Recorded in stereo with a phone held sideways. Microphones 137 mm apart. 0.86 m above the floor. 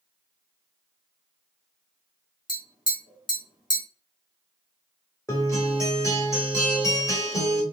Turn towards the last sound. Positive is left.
turn(degrees=25)  # may be behind; listen again after turning